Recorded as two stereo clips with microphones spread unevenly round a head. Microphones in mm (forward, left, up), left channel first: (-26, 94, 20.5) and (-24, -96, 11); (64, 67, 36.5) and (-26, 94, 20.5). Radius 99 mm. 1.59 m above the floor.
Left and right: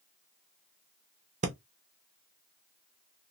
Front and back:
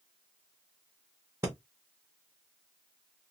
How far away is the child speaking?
No child speaking in this recording.